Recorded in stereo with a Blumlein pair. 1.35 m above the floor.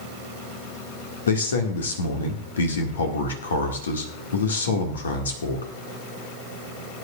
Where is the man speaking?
65° left, 2 m.